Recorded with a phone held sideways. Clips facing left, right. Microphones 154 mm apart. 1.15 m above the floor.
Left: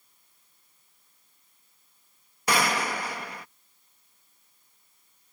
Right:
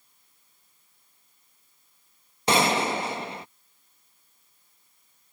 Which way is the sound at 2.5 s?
25° right (ahead or behind).